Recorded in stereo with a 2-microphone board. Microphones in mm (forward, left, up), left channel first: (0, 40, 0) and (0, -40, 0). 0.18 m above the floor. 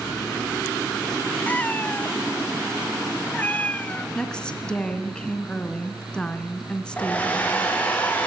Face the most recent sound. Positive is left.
turn(degrees=20)  # may be behind; listen again after turning